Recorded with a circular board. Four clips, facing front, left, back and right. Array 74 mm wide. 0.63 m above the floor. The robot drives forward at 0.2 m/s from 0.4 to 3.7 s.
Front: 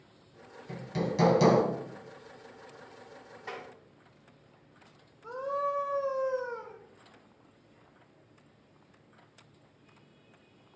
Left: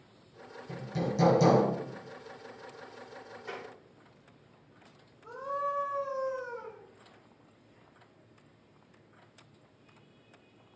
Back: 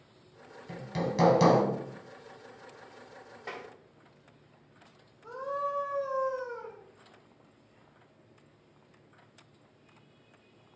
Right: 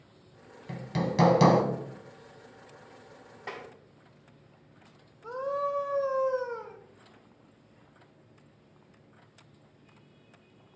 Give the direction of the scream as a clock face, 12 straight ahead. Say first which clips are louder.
Right 3 dB, front 2 dB; 3 o'clock.